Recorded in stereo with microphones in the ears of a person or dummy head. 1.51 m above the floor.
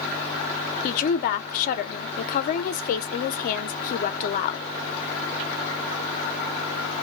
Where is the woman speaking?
45° left (ahead or behind), 0.7 m.